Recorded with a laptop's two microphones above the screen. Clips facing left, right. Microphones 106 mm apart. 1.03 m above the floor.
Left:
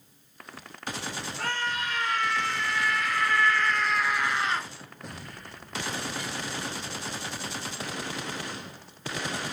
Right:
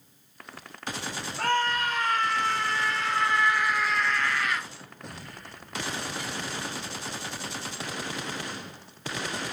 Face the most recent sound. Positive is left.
turn(degrees=35)  # may be behind; listen again after turning